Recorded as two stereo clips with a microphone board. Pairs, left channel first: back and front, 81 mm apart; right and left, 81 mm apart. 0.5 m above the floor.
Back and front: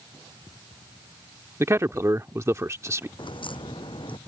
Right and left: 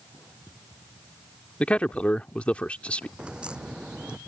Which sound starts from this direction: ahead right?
A man speaking, at 1.6 s.